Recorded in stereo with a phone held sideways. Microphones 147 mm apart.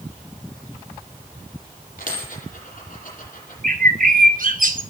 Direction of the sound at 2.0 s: 75° left (ahead or behind).